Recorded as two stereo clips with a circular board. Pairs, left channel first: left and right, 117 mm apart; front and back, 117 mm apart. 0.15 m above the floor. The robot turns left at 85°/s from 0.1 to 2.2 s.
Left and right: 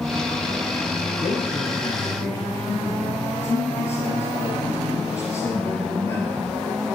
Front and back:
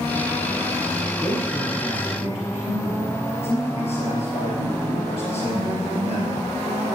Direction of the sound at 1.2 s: 110° left.